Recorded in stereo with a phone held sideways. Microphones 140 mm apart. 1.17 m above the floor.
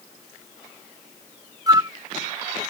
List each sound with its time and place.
1.7 s a flute: 25° right (ahead or behind)